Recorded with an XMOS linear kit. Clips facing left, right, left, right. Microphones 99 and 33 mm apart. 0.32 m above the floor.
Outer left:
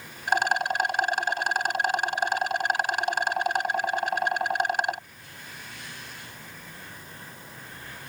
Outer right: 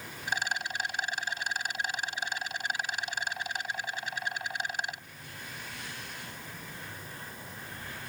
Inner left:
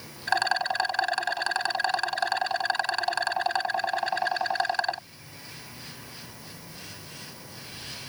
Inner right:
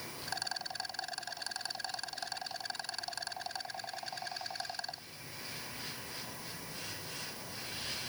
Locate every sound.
0.3 s a rattle: 60° left (ahead or behind)